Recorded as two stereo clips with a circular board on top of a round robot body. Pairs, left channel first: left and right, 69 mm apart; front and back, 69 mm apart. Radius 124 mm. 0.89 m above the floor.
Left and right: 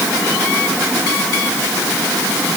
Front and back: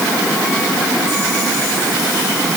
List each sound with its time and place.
Only background noise.